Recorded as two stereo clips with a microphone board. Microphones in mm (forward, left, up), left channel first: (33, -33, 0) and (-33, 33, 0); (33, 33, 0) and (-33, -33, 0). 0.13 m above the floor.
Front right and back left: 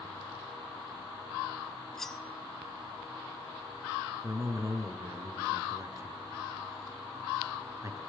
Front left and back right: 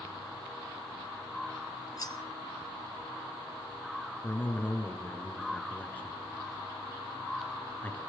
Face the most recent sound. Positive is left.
turn(degrees=105)